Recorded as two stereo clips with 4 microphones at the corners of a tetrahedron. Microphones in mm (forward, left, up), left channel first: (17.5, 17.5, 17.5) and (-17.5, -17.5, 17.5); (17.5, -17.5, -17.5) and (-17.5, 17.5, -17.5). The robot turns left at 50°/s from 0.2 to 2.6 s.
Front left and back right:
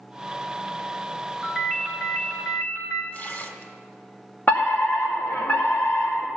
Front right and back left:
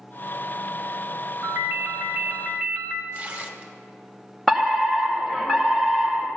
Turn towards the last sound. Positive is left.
turn(degrees=40)